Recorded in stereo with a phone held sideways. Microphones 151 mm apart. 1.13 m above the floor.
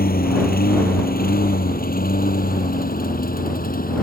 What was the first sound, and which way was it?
A lawn mower, 80° left.